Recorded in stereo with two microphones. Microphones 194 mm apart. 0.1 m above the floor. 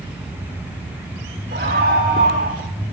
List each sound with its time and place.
1.5 s a scream: 55° right (ahead or behind), 6 m; by 2.6 s 60° right (ahead or behind), 7 m